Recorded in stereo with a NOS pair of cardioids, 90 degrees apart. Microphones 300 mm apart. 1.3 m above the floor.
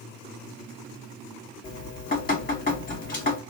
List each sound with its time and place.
1.6 s dripping: 30° left, 1.2 m